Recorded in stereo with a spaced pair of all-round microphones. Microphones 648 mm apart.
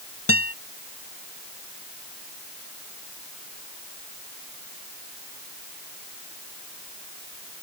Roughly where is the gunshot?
I don't hear a gunshot.